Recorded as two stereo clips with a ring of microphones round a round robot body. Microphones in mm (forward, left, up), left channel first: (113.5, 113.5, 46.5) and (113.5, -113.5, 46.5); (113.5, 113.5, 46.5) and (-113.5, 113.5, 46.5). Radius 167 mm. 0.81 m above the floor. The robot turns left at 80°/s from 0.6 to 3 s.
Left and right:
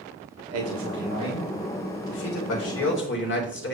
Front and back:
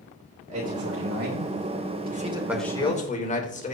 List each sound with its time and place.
0.5 s a man speaking: 110° right, 4 m; by 3.8 s 55° left, 4 m